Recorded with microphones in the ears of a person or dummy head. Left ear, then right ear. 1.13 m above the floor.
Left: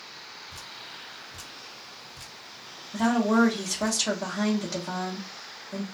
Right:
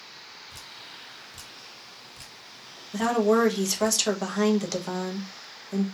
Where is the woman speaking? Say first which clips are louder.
Right 2 dB; 60° right (ahead or behind), 0.7 m.